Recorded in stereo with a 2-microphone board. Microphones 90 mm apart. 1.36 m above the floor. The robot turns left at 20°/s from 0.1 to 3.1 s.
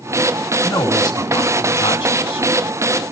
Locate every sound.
0.6 s a man speaking: 140° left, 3 m; by 2.5 s 105° left, 3 m